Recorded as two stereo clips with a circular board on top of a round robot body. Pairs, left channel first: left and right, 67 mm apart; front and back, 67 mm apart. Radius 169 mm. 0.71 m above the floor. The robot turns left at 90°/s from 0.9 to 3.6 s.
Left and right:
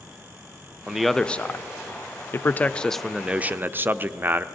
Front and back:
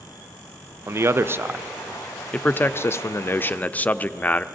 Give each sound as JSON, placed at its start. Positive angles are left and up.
{"t": 0.9, "sound": "a man speaking", "azimuth_deg": -170, "distance_m": 0.5}